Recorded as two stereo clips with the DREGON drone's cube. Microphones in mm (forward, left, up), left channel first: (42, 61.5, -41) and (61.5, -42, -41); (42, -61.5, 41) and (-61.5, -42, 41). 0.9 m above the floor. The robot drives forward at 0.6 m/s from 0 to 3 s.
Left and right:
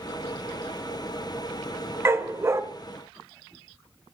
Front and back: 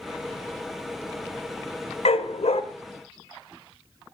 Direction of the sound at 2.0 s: 15° right.